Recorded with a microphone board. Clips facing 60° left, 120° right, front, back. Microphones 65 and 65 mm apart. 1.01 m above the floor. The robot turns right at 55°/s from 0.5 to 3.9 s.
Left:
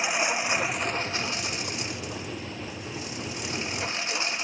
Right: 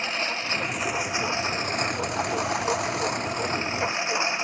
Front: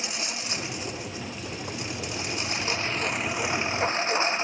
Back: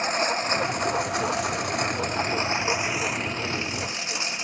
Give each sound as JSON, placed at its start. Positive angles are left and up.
{"t": 0.0, "sound": "a lawn mower", "azimuth_deg": 140}